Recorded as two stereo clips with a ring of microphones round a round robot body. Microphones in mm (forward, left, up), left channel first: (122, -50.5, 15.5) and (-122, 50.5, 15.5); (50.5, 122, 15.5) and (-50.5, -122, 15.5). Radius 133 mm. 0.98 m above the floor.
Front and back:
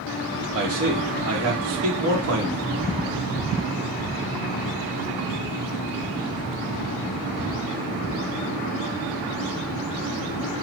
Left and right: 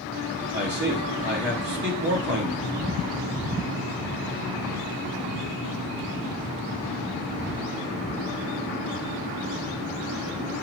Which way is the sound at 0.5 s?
165° right.